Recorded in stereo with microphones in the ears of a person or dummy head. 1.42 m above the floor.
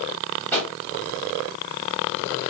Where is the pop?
20° left (ahead or behind), 2.5 m.